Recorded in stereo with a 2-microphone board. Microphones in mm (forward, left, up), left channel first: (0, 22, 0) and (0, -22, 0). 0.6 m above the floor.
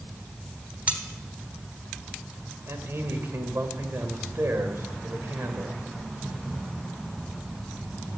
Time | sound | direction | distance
0.9 | cutlery clinking | 35° right (ahead or behind) | 1.2 m
2.7 | a man speaking | 75° right (ahead or behind) | 1.8 m